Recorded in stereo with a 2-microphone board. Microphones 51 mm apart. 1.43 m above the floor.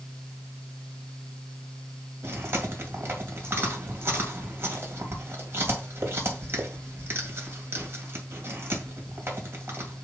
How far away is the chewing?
About 2.0 m.